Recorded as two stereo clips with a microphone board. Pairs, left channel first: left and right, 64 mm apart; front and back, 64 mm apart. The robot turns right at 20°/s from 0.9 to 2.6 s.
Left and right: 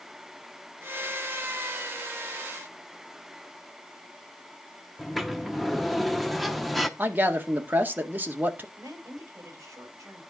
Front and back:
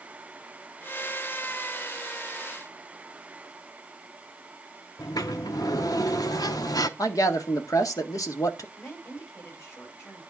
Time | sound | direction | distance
5.0 | a sliding door | straight ahead | 0.8 m
7.0 | a man speaking | 30° right | 1.8 m
8.8 | a woman speaking | 50° right | 5 m